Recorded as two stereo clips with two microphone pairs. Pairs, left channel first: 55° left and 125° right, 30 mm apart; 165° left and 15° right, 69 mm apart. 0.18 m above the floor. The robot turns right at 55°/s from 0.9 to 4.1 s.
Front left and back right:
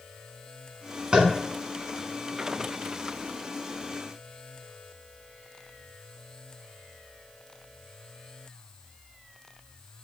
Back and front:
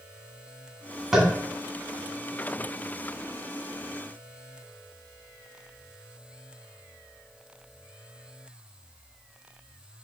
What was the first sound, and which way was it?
Tapping, 100° right.